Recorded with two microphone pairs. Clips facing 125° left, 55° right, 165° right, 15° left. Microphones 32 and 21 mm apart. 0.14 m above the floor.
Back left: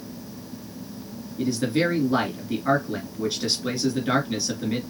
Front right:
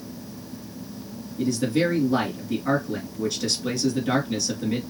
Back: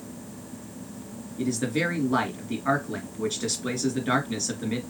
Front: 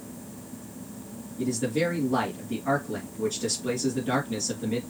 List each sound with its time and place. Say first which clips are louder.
1.4 s a man speaking: even, even; 170° right, 2.5 m